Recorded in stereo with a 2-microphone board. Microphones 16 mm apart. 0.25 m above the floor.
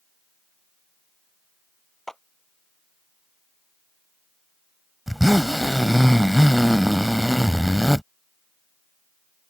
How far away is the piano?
No piano in this recording.